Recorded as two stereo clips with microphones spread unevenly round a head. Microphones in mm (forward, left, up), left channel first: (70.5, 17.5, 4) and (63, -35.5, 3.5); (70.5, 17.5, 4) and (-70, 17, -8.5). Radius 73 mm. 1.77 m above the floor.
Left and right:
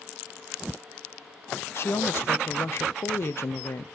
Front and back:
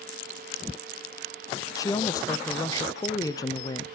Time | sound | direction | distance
1.8 | a woman speaking | 60° left | 0.9 m